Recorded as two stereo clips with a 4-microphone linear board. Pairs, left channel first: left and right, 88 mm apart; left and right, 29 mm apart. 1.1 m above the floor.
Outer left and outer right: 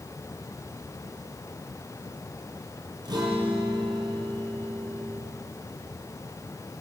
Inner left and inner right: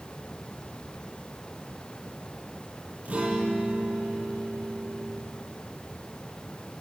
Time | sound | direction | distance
3.0 | a guitar | 50° right (ahead or behind) | 8 m